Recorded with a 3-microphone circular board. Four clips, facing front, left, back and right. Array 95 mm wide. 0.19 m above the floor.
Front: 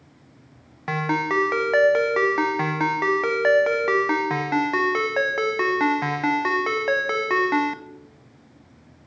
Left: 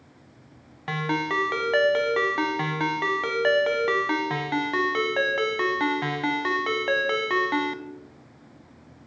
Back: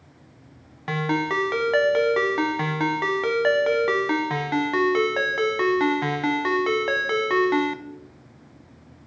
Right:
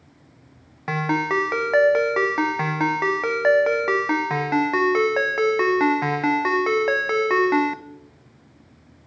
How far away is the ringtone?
About 0.8 m.